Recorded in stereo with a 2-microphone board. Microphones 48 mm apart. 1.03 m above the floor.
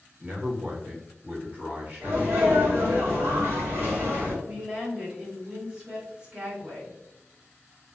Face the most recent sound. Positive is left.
turn(degrees=-15)  # may be behind; listen again after turning